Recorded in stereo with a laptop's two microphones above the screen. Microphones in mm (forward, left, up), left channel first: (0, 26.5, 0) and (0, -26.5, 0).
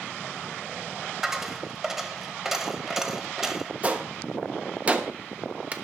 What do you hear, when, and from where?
1.2 s a dropped coin: 10° right (ahead or behind), 1.3 m
3.8 s a gunshot: 30° right (ahead or behind), 1.3 m